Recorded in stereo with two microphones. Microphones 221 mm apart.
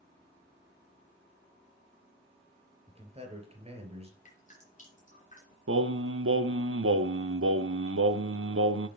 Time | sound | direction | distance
2.9 | a man speaking | 25° right (ahead or behind) | 3.5 m
4.2 | dripping | 35° left (ahead or behind) | 4.5 m
5.7 | singing | 75° right (ahead or behind) | 0.6 m